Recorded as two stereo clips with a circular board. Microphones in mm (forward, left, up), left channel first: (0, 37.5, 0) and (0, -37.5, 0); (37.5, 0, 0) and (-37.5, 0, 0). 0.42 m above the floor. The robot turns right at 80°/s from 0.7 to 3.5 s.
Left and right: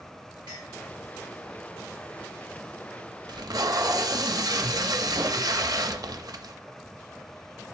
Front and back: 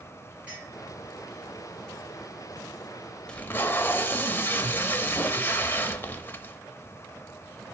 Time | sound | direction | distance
0.5 | a clink | 105° right | 4 m
3.3 | tape being pulled | 75° right | 0.5 m